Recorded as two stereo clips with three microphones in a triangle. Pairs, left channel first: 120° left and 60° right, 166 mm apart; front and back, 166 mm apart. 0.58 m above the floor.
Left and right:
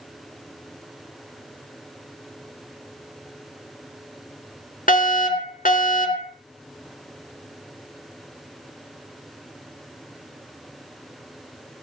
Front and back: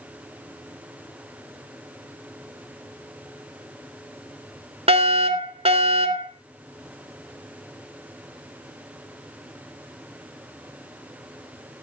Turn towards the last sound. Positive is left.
turn(degrees=135)